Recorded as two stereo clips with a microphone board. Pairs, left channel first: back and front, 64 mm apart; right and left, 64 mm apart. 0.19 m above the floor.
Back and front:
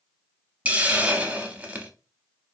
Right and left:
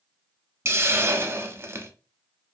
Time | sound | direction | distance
0.7 | a hiss | 60° left | 0.6 m